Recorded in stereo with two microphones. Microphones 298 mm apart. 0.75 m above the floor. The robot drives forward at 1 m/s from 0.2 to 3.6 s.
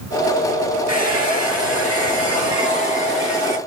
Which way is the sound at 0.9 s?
60° right (ahead or behind).